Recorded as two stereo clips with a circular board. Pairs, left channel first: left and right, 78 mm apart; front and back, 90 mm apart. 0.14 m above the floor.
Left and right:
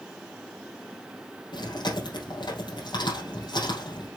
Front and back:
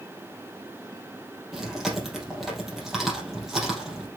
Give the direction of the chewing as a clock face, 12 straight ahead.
9 o'clock.